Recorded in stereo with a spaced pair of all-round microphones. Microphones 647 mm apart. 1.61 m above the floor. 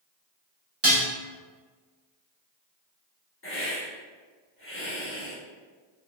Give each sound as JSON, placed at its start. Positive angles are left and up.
{"t": 0.8, "sound": "dishes clattering", "side_deg": -20, "distance_m": 0.9}
{"t": 3.4, "sound": "a hiss", "side_deg": 20, "distance_m": 1.1}